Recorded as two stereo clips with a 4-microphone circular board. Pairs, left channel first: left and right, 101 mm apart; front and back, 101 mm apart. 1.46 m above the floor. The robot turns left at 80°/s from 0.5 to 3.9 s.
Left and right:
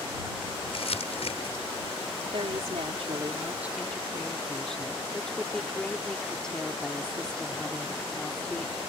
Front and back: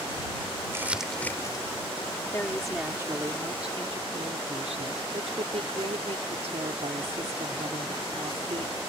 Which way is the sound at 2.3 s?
60° right.